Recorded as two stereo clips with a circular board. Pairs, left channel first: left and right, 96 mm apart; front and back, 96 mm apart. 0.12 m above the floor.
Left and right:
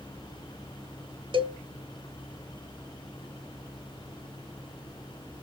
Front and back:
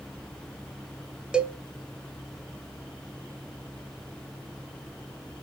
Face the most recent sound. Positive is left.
turn(degrees=-100)